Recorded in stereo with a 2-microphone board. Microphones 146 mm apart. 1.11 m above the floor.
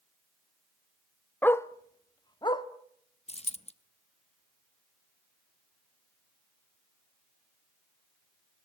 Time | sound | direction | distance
1.4 | a dog barking | 15° left (ahead or behind) | 0.5 m
3.3 | a dropped coin | 45° left (ahead or behind) | 0.7 m